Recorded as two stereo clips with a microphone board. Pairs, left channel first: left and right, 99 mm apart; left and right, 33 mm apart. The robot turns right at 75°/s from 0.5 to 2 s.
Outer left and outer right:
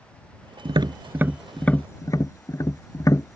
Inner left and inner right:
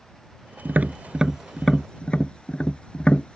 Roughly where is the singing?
I don't hear singing.